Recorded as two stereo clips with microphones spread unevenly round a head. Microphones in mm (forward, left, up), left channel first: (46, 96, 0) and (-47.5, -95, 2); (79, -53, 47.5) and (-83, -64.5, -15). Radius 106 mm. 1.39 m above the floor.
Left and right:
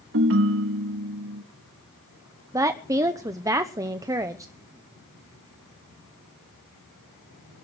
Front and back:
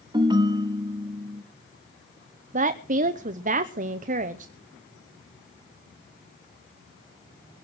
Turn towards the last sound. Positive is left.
turn(degrees=170)